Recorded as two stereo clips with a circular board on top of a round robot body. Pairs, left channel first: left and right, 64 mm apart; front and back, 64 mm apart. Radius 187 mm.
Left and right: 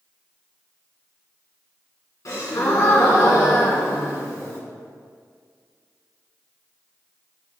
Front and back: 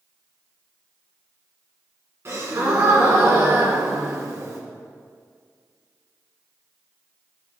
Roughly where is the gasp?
Behind left.